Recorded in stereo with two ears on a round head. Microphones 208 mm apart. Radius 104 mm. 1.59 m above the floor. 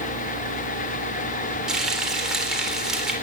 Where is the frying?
5° right (ahead or behind), 3.5 m.